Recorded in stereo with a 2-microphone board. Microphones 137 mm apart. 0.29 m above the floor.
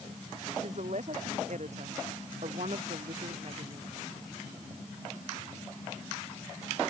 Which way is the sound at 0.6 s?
60° right (ahead or behind).